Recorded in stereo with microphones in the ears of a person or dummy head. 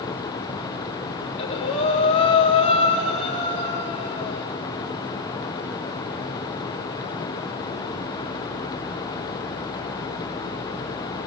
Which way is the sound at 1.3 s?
35° left (ahead or behind).